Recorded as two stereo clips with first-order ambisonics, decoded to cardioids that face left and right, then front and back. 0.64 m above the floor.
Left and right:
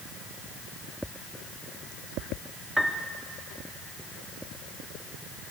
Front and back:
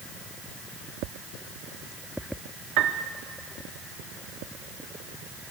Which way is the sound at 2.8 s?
175° right.